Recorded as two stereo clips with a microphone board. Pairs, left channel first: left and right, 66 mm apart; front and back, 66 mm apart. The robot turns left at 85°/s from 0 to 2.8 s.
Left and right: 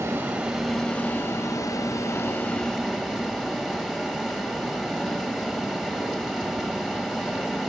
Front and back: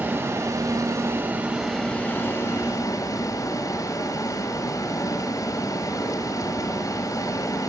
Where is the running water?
120° right, 0.9 m; by 7.7 s straight ahead, 0.9 m.